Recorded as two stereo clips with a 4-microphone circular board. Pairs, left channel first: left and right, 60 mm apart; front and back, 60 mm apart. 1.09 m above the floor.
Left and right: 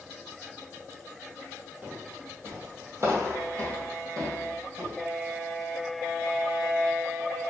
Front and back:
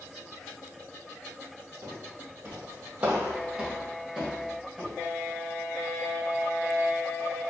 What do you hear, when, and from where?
1.8 s footsteps: 150° right, 1.9 m; by 4.9 s 85° right, 3 m